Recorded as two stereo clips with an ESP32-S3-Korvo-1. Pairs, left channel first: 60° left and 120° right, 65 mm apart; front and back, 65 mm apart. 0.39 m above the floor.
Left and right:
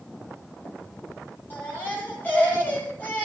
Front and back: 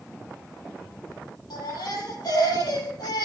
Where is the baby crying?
Straight ahead, 7.5 m.